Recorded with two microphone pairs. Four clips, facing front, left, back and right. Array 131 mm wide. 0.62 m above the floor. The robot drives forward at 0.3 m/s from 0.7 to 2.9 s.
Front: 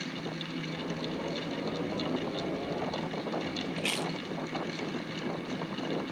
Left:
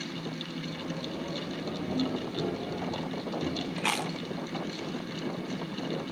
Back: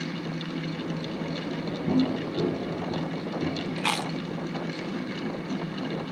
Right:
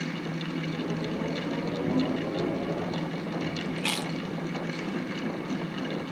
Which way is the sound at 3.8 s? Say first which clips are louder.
Even, back 5 dB; 165° left.